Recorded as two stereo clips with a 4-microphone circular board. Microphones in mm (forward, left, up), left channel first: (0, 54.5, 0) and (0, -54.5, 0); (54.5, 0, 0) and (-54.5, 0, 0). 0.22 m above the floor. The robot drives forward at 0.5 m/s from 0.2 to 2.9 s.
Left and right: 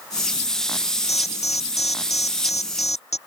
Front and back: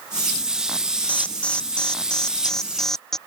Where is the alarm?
80° left; by 3.2 s 85° left.